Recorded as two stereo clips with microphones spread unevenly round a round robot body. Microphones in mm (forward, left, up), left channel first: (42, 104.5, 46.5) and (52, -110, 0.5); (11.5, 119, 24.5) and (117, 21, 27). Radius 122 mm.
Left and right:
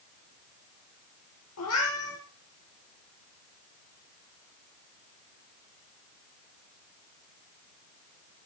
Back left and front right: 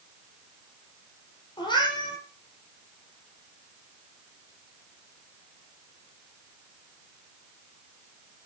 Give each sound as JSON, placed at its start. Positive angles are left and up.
{"t": 1.6, "sound": "a cat meowing", "azimuth_deg": 80, "distance_m": 8.0}